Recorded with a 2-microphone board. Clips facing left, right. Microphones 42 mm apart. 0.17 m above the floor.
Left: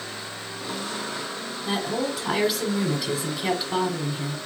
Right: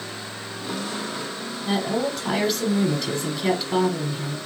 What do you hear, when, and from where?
1.6 s a woman speaking: 5° left (ahead or behind), 1.1 m